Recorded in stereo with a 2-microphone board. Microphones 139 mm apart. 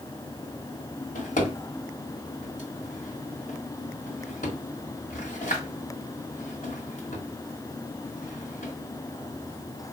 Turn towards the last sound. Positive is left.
turn(degrees=80)